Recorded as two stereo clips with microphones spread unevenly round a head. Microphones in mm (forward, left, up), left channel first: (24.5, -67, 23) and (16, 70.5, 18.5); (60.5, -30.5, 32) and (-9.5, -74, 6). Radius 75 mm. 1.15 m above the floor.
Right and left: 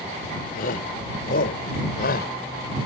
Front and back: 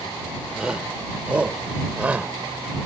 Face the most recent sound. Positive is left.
turn(degrees=-70)